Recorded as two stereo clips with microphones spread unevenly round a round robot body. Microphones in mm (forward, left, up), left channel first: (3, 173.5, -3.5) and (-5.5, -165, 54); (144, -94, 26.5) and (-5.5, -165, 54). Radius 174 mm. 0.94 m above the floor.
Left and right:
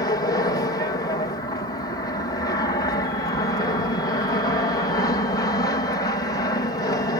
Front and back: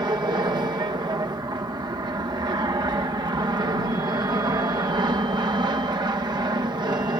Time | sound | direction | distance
0.0 | an aircraft | 145° left | ?